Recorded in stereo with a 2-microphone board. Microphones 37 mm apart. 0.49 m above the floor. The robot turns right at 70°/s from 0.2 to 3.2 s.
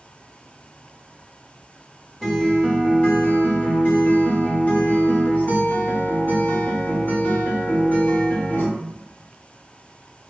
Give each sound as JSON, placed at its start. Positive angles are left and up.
{"t": 2.2, "sound": "a guitar", "azimuth_deg": 15, "distance_m": 0.8}